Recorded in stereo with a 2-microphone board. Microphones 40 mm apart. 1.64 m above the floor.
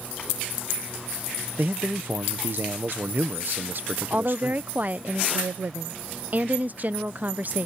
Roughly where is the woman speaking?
Right.